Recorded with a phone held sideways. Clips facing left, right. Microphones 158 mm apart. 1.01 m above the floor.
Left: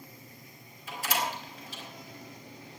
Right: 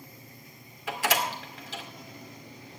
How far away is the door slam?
About 2 m.